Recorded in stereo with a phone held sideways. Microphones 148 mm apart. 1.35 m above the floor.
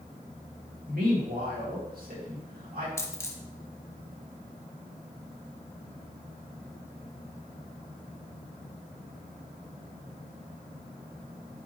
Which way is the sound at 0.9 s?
75° right (ahead or behind).